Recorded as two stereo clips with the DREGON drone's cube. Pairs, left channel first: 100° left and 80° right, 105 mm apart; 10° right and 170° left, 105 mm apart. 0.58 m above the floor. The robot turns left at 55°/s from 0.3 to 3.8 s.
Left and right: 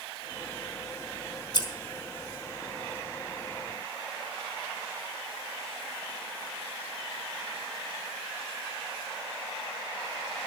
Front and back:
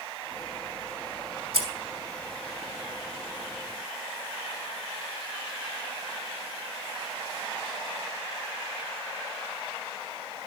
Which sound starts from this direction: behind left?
Scissors, at 1.5 s.